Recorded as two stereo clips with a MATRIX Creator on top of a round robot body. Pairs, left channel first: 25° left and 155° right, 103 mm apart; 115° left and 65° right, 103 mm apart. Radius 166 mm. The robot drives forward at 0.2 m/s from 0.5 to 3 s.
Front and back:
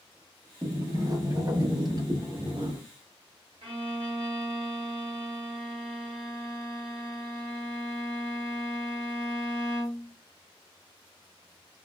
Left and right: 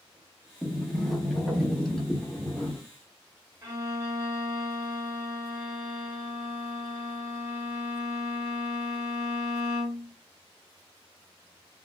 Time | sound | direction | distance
0.6 | a sliding door | 160° right | 1.0 m
3.6 | a violin | 130° right | 1.2 m